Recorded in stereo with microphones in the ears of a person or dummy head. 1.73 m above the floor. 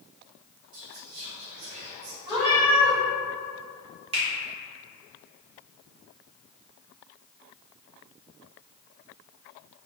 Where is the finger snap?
30° right (ahead or behind), 0.6 m.